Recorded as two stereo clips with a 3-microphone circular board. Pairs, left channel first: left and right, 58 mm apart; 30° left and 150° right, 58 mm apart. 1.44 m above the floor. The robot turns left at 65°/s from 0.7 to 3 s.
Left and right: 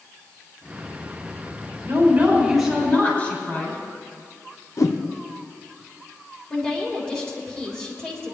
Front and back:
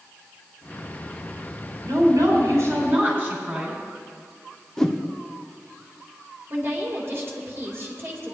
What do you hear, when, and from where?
1.8 s a woman speaking: 135° right, 6 m; by 3.8 s 150° left, 6 m
4.8 s a whoosh: 110° left, 0.9 m
6.5 s a woman speaking: 160° left, 3.5 m